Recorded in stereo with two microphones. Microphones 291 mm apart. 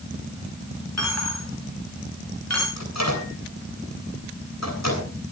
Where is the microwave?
65° left (ahead or behind), 8.5 m.